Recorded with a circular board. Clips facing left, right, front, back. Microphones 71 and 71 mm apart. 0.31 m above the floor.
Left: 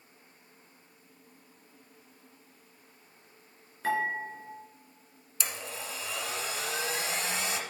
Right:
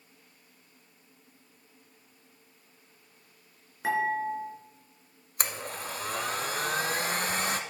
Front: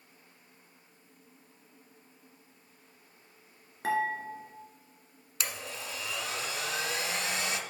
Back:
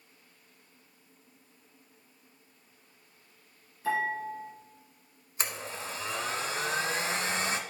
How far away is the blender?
About 0.7 m.